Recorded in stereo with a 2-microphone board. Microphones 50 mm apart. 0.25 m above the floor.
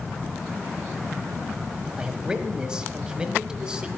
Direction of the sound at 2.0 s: 15° right (ahead or behind).